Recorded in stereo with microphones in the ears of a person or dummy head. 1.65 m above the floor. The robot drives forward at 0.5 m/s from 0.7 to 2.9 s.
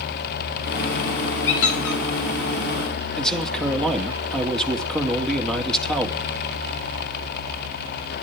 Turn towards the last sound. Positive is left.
turn(degrees=0)  # may be behind; listen again after turning